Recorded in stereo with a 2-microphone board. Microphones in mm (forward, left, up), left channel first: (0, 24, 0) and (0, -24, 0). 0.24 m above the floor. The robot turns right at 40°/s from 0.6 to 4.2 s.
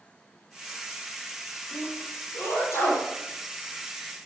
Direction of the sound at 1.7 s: 40° left (ahead or behind).